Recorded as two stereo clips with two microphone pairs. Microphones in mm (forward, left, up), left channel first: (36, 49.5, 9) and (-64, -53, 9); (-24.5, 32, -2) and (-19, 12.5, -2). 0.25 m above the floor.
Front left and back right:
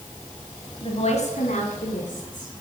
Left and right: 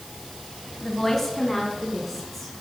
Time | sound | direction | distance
0.8 | a woman speaking | 50° left | 1.6 m